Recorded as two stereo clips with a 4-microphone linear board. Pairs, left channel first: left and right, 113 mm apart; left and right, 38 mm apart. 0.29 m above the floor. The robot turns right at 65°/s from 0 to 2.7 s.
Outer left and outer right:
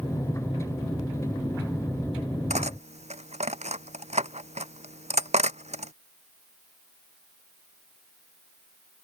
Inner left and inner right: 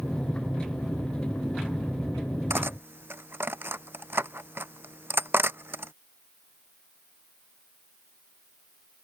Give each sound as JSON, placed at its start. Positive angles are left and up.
{"t": 2.5, "sound": "cutlery clinking", "side_deg": -85}